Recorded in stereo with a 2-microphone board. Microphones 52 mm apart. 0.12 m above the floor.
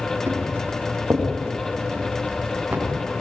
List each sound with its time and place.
0.3 s footsteps: 40° right (ahead or behind), 9 m; by 2.8 s 30° right (ahead or behind), 8.5 m